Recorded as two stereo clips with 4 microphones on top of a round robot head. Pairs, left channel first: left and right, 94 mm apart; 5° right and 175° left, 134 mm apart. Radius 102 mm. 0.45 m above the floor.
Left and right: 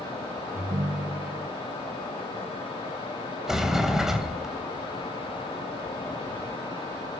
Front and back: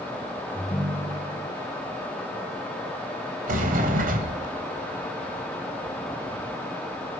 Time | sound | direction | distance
0.5 | a ringtone | 60° right | 2.5 m
3.5 | a sliding door | 175° right | 3 m